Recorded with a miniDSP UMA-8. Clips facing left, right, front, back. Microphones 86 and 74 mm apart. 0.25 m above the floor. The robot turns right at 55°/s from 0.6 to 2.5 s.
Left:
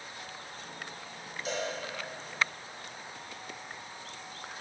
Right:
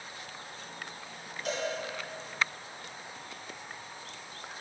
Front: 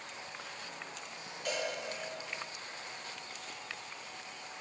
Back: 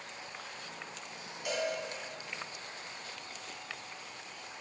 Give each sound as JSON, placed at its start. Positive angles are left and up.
{"t": 1.4, "sound": "a cowbell", "azimuth_deg": -100, "distance_m": 2.5}